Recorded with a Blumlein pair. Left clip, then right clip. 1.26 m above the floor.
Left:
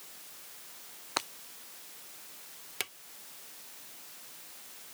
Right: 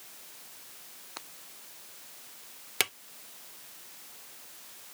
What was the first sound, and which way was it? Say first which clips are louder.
Breaking glass: left 12 dB; 30° left.